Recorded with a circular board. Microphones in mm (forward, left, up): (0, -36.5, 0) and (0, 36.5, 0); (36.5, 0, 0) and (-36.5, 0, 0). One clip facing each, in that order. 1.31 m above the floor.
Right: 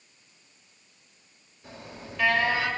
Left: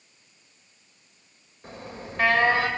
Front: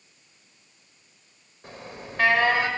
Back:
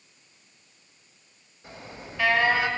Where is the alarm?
40° left, 7 m.